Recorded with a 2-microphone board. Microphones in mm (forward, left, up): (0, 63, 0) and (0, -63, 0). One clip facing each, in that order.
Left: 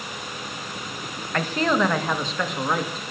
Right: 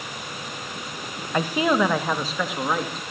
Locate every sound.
1.3 s a man speaking: 15° right (ahead or behind), 1.8 m; by 3.0 s centre (ahead or behind), 3 m